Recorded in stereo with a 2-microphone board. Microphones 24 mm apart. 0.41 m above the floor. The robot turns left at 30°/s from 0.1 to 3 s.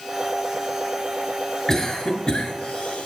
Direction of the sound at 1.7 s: 20° left (ahead or behind).